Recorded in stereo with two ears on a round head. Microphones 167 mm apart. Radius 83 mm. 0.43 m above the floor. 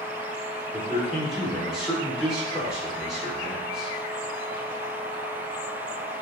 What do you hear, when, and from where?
0.7 s a man speaking: 5° right (ahead or behind), 0.8 m